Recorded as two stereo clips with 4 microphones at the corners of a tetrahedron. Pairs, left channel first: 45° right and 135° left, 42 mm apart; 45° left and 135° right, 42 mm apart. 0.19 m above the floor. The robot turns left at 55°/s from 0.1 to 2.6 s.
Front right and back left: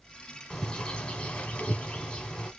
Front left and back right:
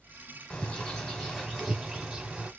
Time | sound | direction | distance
0.5 | a bird | straight ahead | 1.3 m